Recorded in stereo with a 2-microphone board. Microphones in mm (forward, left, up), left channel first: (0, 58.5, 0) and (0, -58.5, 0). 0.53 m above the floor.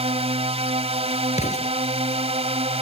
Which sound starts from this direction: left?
An explosion, at 1.3 s.